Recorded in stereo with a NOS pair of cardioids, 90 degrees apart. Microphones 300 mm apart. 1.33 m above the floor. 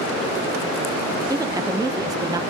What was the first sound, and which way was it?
A woman speaking, 10° right.